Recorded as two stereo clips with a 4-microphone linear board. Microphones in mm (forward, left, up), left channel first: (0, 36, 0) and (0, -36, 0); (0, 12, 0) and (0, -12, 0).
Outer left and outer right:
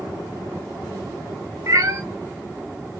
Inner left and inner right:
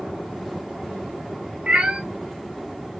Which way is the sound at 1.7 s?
50° right (ahead or behind).